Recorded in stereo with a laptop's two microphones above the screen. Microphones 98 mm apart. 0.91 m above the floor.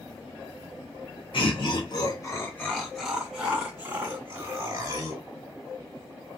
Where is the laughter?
60° left (ahead or behind), 1.0 m; by 5.2 s 40° right (ahead or behind), 1.7 m.